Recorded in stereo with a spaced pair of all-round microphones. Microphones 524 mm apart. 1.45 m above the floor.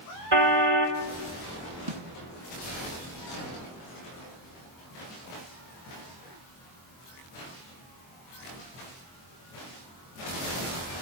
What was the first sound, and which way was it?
A car horn, 70° right (ahead or behind).